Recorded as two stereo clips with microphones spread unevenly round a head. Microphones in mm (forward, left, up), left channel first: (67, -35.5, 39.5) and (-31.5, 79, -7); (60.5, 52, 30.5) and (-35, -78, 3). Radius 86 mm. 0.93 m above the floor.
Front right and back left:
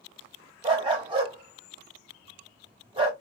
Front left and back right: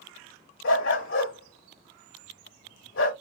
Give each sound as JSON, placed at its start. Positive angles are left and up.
{"t": 0.6, "sound": "a dog barking", "azimuth_deg": 70, "distance_m": 2.0}